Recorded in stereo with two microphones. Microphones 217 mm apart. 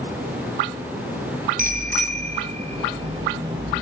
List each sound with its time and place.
1.6 s a bicycle bell: 40° right (ahead or behind), 4 m; by 3.8 s 20° right (ahead or behind), 7 m